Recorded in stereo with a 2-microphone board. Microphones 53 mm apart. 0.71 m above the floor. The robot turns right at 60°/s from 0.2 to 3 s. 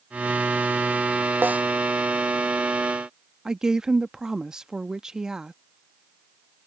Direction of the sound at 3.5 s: 10° right (ahead or behind).